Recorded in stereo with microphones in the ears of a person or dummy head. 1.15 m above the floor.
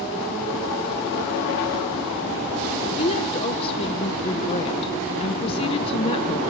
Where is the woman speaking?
25° left (ahead or behind), 0.6 m.